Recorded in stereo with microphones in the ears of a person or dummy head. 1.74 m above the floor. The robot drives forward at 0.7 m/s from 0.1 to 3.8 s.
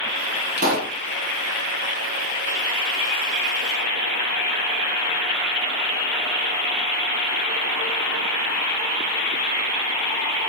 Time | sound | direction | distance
0.6 | a pop | 45° right (ahead or behind) | 2.5 m